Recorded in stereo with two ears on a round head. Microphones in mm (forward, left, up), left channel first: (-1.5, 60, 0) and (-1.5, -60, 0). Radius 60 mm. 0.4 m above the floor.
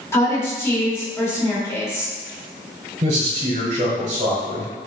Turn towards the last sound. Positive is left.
turn(degrees=-45)  # may be behind; listen again after turning